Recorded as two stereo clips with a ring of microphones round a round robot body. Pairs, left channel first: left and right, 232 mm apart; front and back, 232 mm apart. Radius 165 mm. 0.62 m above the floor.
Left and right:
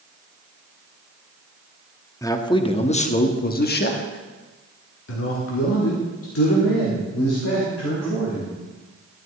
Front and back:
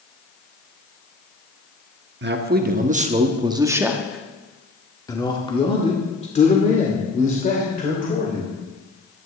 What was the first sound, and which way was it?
A man speaking, 165° left.